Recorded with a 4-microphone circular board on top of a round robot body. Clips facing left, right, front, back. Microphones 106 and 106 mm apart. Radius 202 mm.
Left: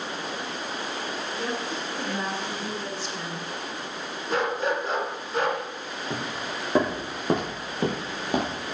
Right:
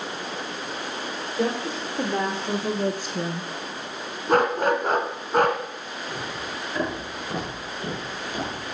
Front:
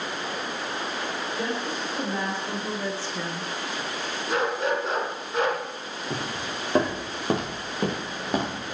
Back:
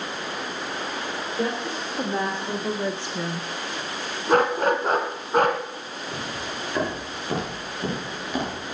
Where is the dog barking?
135° right, 1.5 m.